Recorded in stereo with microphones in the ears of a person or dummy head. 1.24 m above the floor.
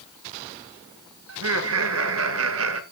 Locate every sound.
1.3 s laughter: 75° right (ahead or behind), 2.5 m; by 2.8 s 70° right (ahead or behind), 1.6 m